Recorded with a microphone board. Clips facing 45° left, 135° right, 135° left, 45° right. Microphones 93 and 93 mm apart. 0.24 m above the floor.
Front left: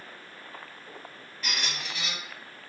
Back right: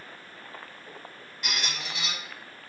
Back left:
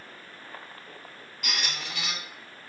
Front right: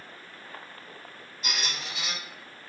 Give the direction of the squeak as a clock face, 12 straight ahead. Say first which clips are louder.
Even, even; 7 o'clock.